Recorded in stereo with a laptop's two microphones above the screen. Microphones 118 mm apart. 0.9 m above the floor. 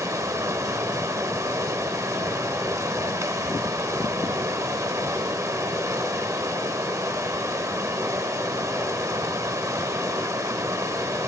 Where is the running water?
25° right (ahead or behind), 0.8 m.